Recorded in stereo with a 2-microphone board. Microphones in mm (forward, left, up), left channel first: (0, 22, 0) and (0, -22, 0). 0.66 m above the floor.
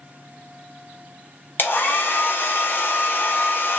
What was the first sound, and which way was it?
A hair dryer, 50° left (ahead or behind).